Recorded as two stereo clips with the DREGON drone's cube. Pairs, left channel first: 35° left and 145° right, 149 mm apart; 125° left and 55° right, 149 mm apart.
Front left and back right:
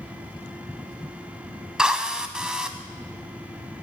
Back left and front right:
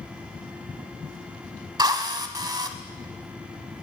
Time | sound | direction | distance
1.8 | a drill | 70° right | 0.7 m